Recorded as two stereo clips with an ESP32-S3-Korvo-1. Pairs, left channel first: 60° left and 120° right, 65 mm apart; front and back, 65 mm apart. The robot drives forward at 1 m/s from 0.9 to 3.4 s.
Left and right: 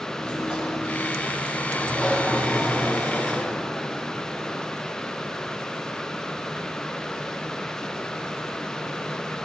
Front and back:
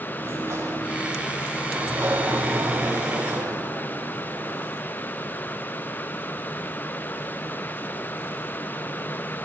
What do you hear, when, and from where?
0.2 s a sliding door: 135° left, 7.5 m; by 4.7 s 145° left, 9 m